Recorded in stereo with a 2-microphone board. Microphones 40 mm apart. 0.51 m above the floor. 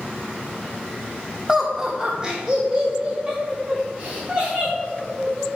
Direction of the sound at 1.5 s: 10° right (ahead or behind).